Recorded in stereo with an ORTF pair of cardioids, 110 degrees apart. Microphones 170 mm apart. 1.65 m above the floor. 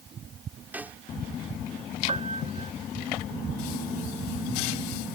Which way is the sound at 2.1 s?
35° right.